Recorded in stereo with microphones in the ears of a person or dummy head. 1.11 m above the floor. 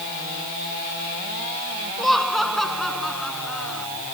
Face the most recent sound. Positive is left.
turn(degrees=-5)  # may be behind; listen again after turning